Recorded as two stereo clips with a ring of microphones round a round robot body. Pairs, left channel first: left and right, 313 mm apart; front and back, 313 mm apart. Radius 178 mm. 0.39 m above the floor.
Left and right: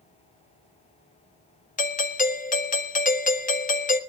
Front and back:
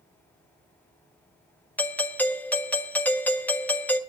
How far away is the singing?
No singing in this recording.